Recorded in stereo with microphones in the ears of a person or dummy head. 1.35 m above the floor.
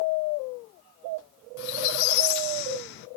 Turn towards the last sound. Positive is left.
turn(degrees=65)  # may be behind; listen again after turning